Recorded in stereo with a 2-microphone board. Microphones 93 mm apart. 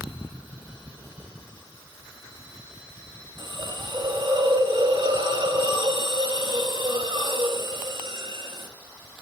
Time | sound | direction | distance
3.4 | a hiss | 55° right (ahead or behind) | 1.2 m